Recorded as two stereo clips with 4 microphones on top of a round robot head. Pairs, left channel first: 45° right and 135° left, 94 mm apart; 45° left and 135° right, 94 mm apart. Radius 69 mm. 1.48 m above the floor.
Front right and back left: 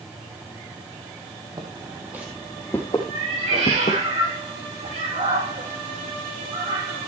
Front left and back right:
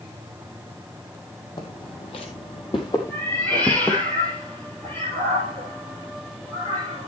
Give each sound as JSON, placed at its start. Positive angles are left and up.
{"t": 1.6, "sound": "footsteps", "azimuth_deg": 85, "distance_m": 2.5}
{"t": 3.1, "sound": "a cat meowing", "azimuth_deg": 120, "distance_m": 8.5}